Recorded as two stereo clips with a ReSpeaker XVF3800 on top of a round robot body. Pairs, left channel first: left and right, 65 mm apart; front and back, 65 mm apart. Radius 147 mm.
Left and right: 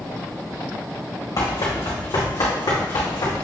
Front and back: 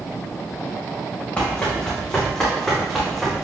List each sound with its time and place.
1.4 s running footsteps: 70° left, 3 m; by 3.4 s 90° left, 2.5 m